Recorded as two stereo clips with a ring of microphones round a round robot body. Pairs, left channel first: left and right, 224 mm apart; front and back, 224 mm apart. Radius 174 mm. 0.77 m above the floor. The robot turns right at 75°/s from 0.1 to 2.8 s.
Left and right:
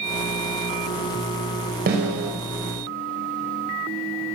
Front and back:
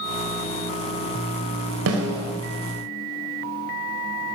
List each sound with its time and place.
1.9 s a snare drum: 150° right, 4.5 m; by 2.3 s 115° right, 4.5 m